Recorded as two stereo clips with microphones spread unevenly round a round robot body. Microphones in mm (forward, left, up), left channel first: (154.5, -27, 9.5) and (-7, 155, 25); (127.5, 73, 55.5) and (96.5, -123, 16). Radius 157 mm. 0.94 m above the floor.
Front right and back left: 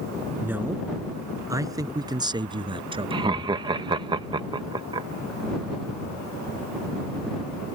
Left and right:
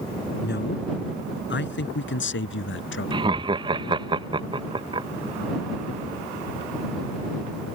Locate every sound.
0.4 s a man speaking: 50° left; by 3.3 s 65° left
3.1 s laughter: 155° right